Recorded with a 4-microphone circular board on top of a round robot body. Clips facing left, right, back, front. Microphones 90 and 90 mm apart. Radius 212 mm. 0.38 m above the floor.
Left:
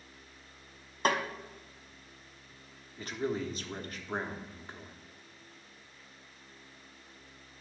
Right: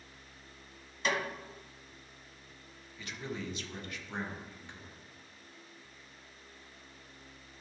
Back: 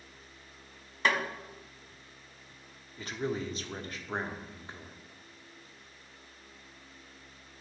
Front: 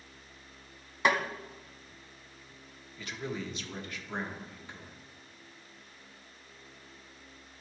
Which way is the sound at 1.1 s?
75° left.